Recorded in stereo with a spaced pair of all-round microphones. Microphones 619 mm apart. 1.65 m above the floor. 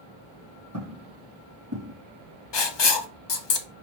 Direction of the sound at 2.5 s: 45° left (ahead or behind).